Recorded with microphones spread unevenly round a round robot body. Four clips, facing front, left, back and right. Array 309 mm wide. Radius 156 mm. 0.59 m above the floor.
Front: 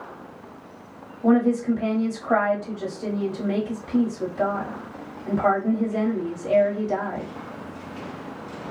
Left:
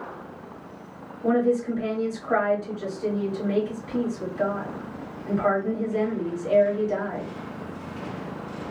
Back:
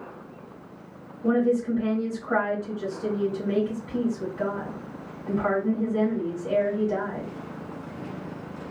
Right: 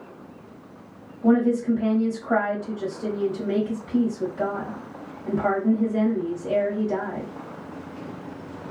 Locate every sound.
1.2 s a woman speaking: 15° right, 1.5 m